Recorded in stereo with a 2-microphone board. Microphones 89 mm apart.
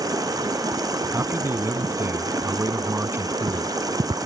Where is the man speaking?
30° right (ahead or behind).